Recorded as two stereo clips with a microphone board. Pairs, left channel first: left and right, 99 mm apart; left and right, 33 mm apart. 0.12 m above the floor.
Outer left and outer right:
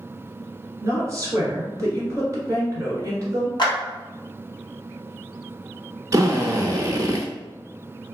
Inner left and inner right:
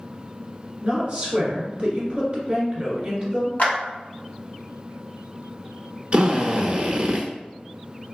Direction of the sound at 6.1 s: 40° right (ahead or behind).